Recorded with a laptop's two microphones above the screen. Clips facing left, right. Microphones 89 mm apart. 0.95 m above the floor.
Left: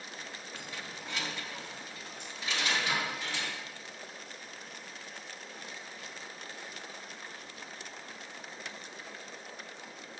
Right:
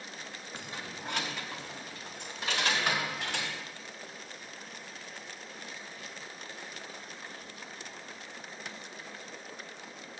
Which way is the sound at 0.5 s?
20° right (ahead or behind).